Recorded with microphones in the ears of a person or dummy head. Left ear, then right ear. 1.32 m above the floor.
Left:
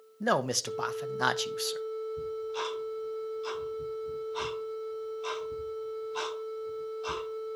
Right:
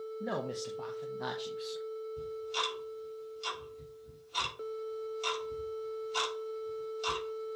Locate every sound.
0.2 s a man speaking: 55° left (ahead or behind), 0.7 m
2.2 s ticking: 75° right (ahead or behind), 4.5 m